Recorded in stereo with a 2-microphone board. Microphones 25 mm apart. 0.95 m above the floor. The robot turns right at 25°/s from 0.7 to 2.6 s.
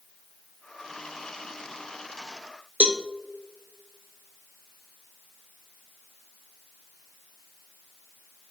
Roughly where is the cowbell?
Right.